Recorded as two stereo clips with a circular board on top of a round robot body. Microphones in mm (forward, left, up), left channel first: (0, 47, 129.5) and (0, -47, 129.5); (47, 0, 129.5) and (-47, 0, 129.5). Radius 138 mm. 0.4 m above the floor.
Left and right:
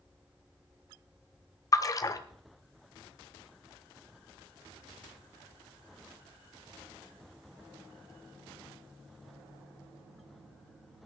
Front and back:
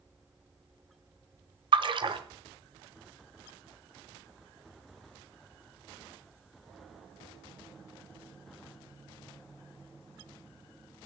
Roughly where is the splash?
Behind left.